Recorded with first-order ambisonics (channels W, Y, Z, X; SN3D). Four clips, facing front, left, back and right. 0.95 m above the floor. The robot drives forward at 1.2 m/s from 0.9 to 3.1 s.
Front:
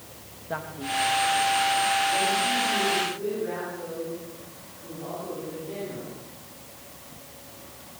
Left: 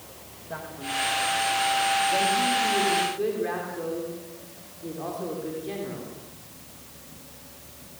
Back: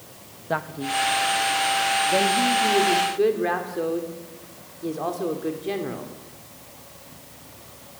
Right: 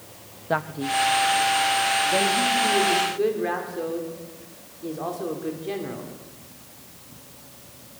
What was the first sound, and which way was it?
A man speaking, 120° right.